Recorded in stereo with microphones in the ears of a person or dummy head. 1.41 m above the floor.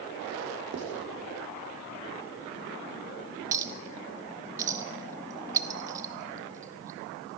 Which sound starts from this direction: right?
Writing, at 0.7 s.